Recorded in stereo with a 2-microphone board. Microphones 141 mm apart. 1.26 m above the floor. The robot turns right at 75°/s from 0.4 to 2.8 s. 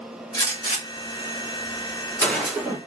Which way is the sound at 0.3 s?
30° left (ahead or behind).